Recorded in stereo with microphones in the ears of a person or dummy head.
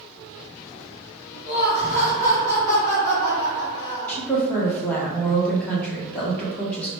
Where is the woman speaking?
10° left (ahead or behind), 0.9 m.